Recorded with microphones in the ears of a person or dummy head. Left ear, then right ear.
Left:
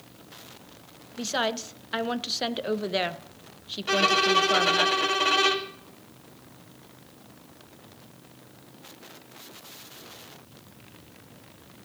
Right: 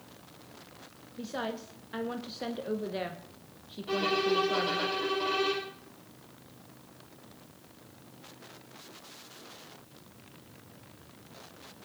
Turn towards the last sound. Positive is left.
turn(degrees=55)  # may be behind; listen again after turning